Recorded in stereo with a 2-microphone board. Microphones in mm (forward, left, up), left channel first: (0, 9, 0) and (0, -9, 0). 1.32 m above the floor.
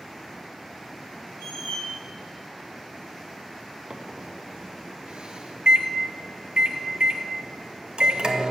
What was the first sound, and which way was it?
A squeak, 70° left (ahead or behind).